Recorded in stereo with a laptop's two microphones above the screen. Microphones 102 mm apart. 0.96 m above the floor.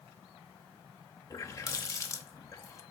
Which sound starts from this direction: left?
A running tap, at 1.3 s.